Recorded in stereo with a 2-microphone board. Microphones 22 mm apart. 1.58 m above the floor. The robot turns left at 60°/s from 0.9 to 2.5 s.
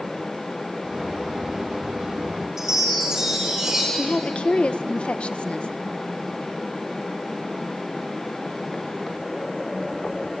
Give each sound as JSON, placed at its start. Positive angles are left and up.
{"t": 2.6, "sound": "a chime", "side_deg": -20, "distance_m": 6.0}
{"t": 3.9, "sound": "a woman speaking", "side_deg": 60, "distance_m": 1.2}